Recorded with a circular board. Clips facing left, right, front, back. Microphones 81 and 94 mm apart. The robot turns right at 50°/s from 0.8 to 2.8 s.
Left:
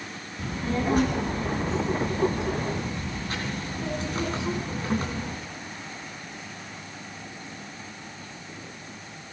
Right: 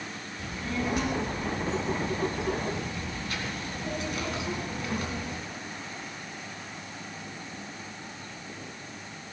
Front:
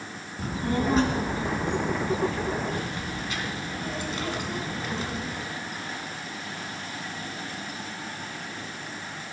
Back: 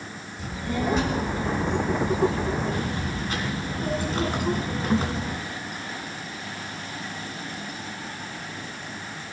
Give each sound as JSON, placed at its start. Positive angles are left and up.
{"t": 0.4, "sound": "a child speaking", "azimuth_deg": 40, "distance_m": 2.0}